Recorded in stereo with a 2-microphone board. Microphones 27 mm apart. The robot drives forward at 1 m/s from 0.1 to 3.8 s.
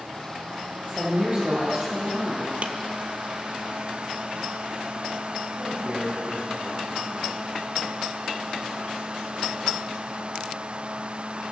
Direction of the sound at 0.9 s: 40° right (ahead or behind).